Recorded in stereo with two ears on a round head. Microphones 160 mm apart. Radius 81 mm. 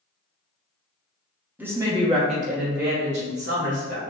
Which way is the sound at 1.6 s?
10° right (ahead or behind).